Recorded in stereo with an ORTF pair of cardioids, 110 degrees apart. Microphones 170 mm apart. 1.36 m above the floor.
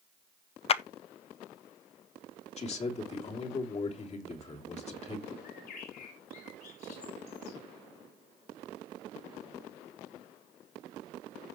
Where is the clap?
35° left, 0.6 m.